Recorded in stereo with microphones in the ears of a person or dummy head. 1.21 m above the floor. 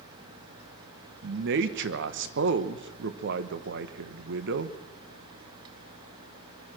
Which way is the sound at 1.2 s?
60° right (ahead or behind).